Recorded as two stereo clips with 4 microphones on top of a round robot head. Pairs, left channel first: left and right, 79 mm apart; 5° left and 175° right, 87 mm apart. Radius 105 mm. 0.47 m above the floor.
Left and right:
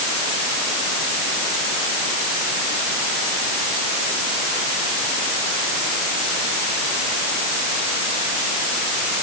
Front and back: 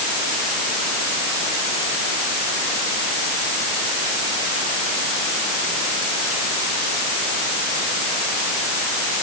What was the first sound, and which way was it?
Only background noise.